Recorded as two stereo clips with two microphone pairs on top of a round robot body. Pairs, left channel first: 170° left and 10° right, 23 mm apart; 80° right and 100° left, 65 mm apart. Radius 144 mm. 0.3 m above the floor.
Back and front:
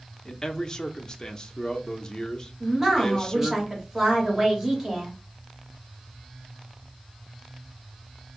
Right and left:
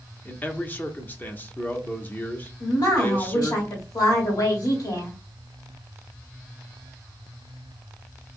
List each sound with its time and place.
0.2 s a man speaking: 145° right, 0.9 m
2.6 s a woman speaking: 65° right, 2.5 m